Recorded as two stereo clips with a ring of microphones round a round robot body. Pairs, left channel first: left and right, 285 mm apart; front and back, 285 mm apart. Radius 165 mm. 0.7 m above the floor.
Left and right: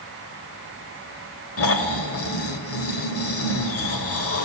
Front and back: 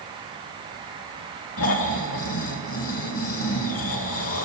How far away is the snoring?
About 1.6 m.